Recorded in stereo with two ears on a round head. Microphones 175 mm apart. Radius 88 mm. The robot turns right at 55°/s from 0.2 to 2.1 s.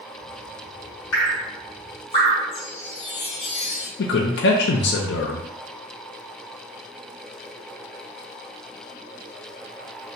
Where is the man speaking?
60° left (ahead or behind), 0.5 m.